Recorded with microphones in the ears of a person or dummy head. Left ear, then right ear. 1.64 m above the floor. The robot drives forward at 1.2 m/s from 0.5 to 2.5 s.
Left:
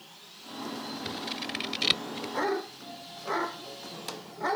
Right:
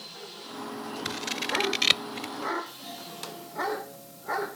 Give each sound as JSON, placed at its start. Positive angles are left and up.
{"t": 1.1, "sound": "scissors", "side_deg": -40}
{"t": 2.7, "sound": "a doorbell", "side_deg": -85}